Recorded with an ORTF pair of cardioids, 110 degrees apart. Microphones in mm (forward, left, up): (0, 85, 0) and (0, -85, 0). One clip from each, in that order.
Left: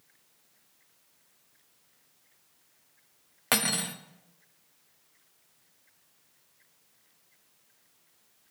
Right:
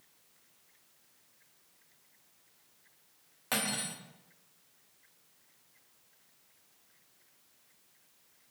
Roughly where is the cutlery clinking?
Ahead left.